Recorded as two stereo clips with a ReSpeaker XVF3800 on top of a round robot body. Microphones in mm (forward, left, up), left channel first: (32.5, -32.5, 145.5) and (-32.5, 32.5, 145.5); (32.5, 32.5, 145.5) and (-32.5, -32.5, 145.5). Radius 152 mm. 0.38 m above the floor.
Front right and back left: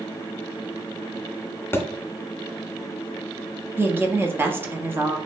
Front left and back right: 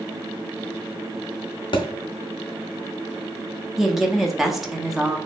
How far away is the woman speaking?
About 0.8 m.